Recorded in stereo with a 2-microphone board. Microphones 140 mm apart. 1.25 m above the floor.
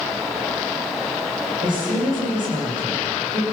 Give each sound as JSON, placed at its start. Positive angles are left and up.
{"t": 1.6, "sound": "a woman speaking", "side_deg": -70, "distance_m": 7.0}